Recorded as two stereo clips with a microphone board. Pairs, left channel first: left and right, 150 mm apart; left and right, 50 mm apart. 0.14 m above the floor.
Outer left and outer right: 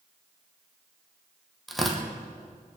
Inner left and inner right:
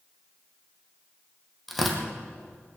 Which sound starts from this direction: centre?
Tearing paper, at 1.7 s.